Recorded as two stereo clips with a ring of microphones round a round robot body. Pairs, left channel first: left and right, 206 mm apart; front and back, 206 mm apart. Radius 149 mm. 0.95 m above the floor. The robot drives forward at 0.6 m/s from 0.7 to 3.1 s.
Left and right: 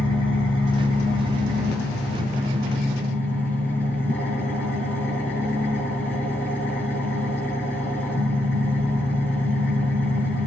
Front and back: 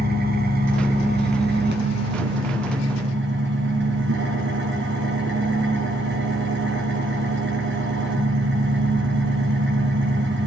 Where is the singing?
I don't hear singing.